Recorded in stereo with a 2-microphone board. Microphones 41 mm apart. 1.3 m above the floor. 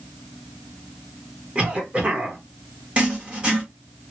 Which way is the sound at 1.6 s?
25° right (ahead or behind).